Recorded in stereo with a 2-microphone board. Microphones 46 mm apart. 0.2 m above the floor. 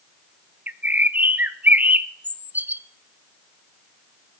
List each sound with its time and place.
0.7 s a bird: 40° right (ahead or behind), 0.5 m